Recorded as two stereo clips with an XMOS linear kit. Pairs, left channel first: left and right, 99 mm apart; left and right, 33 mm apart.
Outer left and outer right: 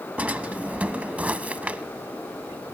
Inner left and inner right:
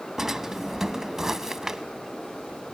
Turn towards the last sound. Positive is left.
turn(degrees=-15)  # may be behind; listen again after turning